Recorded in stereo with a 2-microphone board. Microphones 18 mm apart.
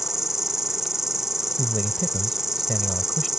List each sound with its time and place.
0.0 s an insect: 20° right (ahead or behind)
1.6 s a man speaking: 30° left (ahead or behind)